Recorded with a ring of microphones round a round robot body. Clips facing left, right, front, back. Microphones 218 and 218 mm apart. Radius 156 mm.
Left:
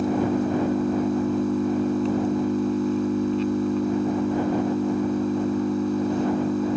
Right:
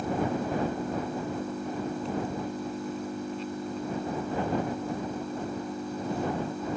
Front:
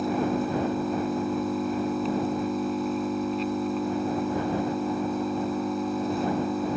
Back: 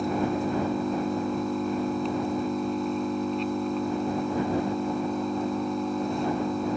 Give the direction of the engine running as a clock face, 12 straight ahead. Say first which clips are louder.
Left 7 dB, front 1 dB; 9 o'clock.